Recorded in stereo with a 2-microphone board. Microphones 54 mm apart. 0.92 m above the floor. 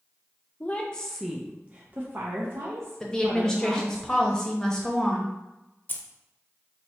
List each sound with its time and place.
0.6 s a woman speaking: 30° left (ahead or behind), 0.7 m; by 4.0 s 65° right (ahead or behind), 1.6 m
3.0 s a woman speaking: 10° left (ahead or behind), 0.7 m
5.9 s keys jangling: 35° left (ahead or behind), 0.5 m